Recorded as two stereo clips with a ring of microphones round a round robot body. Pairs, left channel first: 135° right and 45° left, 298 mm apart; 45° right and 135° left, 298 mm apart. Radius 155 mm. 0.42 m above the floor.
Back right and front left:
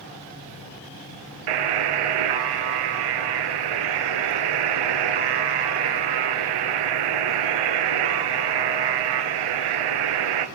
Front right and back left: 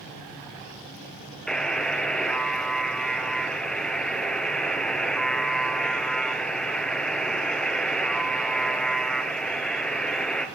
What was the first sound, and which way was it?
A buzzer, 45° left.